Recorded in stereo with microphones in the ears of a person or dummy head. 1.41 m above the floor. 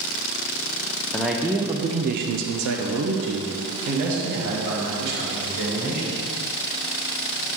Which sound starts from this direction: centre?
A man speaking, at 1.1 s.